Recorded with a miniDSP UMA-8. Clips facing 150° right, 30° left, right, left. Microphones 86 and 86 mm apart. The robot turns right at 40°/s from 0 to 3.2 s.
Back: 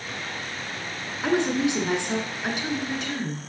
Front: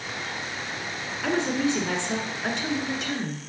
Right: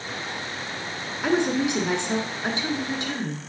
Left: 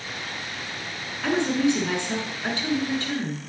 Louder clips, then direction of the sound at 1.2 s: Back 2 dB, even; 135° right.